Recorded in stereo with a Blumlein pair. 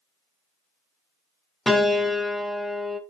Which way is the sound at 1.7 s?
5° left.